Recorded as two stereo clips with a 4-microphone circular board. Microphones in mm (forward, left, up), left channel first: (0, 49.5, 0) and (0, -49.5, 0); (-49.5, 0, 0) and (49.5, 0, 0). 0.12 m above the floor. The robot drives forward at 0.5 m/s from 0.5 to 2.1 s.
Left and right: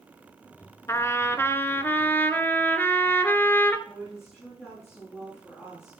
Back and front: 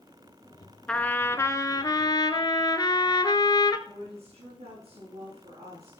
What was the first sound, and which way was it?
A trumpet, 110° left.